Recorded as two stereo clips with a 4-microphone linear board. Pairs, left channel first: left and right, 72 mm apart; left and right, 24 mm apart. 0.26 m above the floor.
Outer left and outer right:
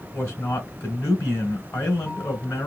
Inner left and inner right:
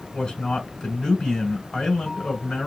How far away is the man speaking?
About 3 m.